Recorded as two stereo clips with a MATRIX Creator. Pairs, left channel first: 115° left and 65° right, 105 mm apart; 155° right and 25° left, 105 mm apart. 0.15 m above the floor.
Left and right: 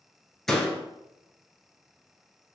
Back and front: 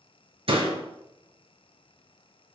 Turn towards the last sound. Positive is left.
turn(degrees=30)